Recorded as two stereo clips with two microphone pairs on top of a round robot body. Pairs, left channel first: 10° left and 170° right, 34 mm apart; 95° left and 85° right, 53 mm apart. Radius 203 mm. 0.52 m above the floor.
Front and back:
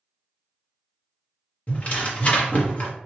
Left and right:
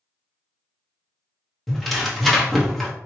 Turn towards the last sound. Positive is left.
turn(degrees=25)